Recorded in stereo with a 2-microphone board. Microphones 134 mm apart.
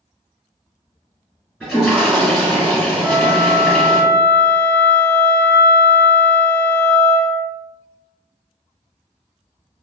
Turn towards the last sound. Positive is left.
turn(degrees=5)  # may be behind; listen again after turning